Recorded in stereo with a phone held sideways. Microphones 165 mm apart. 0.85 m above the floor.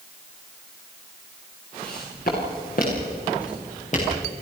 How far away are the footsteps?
About 6 m.